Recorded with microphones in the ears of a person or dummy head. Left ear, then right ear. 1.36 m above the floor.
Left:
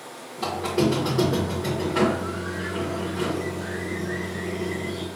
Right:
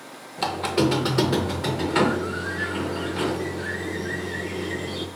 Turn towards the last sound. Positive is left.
turn(degrees=-40)  # may be behind; listen again after turning